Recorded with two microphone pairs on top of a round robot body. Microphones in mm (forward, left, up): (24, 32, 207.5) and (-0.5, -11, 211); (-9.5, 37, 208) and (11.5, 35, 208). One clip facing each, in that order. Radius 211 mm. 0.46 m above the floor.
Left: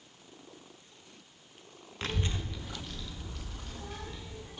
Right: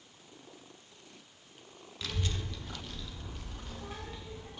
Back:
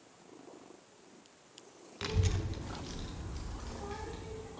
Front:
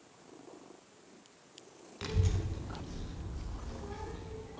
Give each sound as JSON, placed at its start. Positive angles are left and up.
{"t": 2.0, "sound": "a child speaking", "azimuth_deg": 100, "distance_m": 0.5}